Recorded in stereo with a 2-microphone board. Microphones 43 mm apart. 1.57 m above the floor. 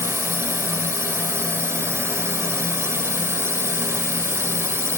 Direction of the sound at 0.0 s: 90° right.